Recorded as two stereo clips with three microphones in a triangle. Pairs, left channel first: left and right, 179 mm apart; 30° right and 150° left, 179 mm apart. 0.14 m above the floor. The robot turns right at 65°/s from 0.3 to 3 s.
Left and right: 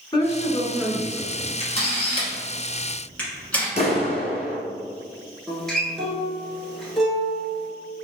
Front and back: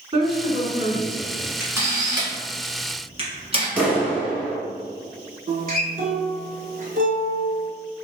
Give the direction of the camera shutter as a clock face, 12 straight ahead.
10 o'clock.